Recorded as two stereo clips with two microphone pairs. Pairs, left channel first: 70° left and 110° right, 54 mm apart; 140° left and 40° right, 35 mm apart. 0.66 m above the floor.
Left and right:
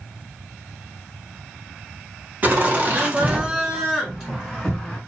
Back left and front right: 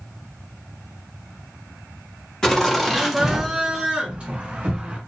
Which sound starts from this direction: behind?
Laughter, at 2.4 s.